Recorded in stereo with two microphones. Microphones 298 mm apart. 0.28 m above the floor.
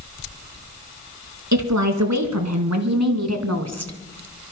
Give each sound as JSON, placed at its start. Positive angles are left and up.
{"t": 1.5, "sound": "a woman speaking", "side_deg": -70, "distance_m": 3.0}